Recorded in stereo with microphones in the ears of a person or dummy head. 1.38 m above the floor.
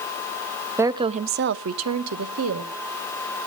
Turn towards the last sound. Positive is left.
turn(degrees=-75)  # may be behind; listen again after turning